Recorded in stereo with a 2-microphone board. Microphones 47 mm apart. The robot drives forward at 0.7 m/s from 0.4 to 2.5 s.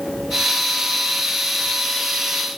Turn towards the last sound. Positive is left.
No sound to turn to.